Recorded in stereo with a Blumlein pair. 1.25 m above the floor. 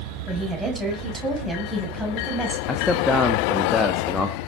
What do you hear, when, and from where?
0.3 s a woman speaking: 10° right, 7.5 m; by 2.6 s straight ahead, 7.5 m
2.7 s a man speaking: 10° left, 1.7 m